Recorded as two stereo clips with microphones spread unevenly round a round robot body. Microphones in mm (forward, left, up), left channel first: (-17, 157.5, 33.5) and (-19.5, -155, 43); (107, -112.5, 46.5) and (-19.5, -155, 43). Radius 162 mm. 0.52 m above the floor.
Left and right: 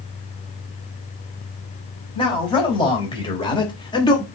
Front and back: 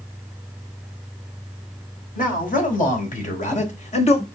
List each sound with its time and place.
2.1 s a man speaking: 15° left, 4.5 m; by 4.2 s 20° left, 1.7 m